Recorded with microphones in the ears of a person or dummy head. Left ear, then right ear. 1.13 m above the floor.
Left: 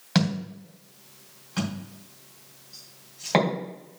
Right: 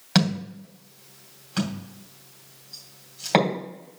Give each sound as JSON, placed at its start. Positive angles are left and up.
{"t": 0.1, "sound": "a thud", "side_deg": -15, "distance_m": 2.5}